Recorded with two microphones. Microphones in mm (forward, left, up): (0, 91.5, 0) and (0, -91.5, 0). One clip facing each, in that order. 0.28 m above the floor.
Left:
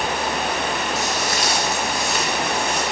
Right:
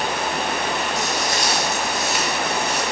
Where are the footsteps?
5° left (ahead or behind), 3.5 m; by 2.8 s 10° right (ahead or behind), 4.5 m.